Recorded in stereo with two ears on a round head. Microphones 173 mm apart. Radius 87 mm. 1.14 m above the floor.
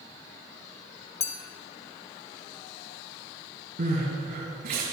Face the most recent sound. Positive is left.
turn(degrees=-50)  # may be behind; listen again after turning